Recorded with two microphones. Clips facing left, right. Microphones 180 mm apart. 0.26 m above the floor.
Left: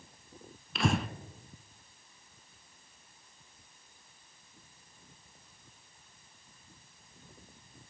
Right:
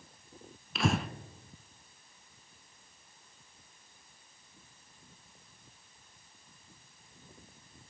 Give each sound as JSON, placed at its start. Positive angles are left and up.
{"t": 0.8, "sound": "breathing", "side_deg": 0, "distance_m": 0.6}